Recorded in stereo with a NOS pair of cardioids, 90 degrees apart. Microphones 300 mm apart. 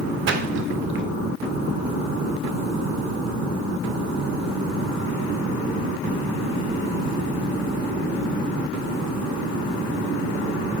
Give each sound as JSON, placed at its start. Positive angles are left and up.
{"t": 0.3, "sound": "a splash", "azimuth_deg": -40, "distance_m": 0.7}